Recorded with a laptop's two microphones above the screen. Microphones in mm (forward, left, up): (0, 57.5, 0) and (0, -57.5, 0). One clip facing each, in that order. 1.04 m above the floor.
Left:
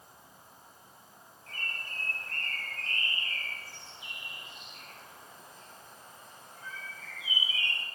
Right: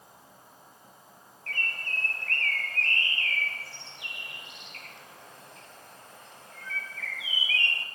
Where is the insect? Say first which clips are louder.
Right 2 dB; 80° right, 10 m.